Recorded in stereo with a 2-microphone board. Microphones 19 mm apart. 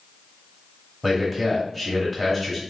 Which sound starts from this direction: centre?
A man speaking, at 1.0 s.